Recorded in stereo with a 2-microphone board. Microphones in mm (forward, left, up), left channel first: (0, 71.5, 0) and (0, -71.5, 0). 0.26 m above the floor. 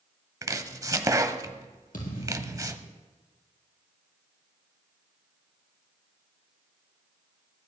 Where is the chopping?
25° right (ahead or behind), 0.8 m.